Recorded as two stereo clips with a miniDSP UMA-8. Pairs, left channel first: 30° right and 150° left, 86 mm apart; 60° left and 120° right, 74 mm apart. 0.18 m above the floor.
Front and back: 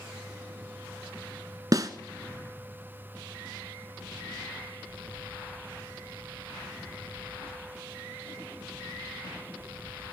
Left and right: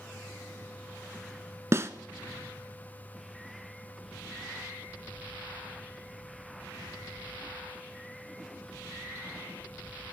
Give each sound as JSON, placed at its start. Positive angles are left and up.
{"t": 1.7, "sound": "a snare drum", "azimuth_deg": -170, "distance_m": 0.6}